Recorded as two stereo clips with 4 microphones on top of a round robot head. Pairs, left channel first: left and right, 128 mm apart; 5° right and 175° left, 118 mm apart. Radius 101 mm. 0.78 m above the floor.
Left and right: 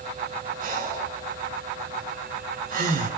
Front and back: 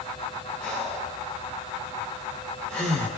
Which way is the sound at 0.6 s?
90° right.